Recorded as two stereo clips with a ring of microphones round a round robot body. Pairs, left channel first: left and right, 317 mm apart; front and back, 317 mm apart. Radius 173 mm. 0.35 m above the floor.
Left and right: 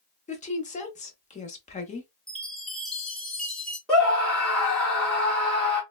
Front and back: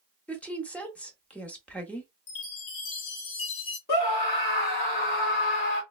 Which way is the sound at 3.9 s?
5° left.